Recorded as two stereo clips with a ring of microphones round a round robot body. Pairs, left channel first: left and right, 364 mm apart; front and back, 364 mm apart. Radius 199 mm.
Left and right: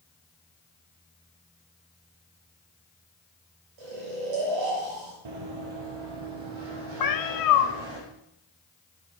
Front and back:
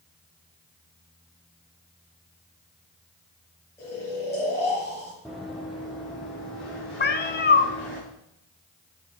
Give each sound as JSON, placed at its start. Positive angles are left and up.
{"t": 3.8, "sound": "snoring", "azimuth_deg": -85, "distance_m": 4.0}
{"t": 5.2, "sound": "running footsteps", "azimuth_deg": -90, "distance_m": 1.2}
{"t": 7.0, "sound": "a cat meowing", "azimuth_deg": 60, "distance_m": 0.8}